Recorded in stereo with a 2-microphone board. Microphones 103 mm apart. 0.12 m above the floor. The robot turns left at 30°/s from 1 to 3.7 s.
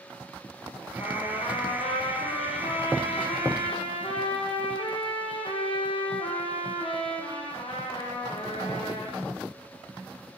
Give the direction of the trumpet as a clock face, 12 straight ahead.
7 o'clock.